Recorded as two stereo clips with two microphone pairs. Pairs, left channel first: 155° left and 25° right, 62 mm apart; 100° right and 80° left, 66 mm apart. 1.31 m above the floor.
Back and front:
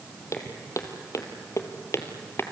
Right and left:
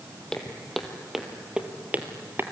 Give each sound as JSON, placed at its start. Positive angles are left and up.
{"t": 0.3, "sound": "footsteps", "azimuth_deg": -175, "distance_m": 2.5}